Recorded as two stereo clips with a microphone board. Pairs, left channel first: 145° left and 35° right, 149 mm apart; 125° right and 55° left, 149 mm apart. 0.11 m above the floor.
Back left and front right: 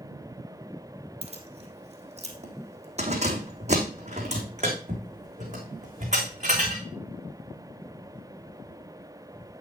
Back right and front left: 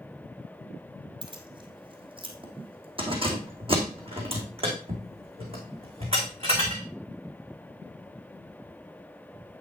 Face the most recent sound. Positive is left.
turn(degrees=5)